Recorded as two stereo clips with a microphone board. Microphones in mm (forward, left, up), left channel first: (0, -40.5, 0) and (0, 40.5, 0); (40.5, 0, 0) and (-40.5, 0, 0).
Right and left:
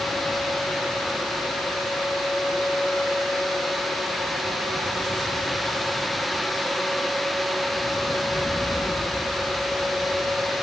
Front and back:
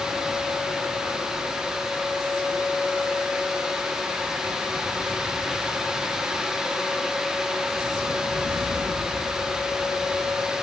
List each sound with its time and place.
Only background noise.